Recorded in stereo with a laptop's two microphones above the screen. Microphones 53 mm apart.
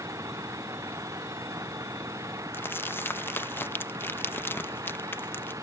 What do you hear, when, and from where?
0.0 s an engine running: 85° right
2.5 s crumpling: 40° left (ahead or behind)